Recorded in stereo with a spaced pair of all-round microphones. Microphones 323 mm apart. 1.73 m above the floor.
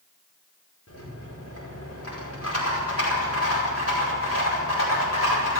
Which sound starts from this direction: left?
A rattle, at 0.9 s.